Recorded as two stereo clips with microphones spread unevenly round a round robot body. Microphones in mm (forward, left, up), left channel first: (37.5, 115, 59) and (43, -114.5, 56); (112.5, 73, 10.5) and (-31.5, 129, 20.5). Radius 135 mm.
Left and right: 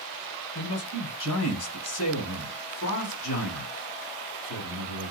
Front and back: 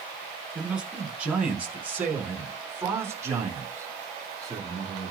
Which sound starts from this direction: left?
A man speaking, at 0.6 s.